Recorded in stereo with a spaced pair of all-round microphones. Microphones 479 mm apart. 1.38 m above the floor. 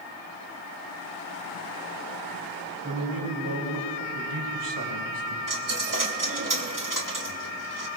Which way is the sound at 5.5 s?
40° right (ahead or behind).